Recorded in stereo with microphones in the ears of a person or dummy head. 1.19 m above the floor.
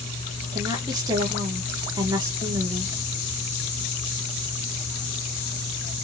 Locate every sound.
0.5 s a woman speaking: 20° right (ahead or behind), 0.9 m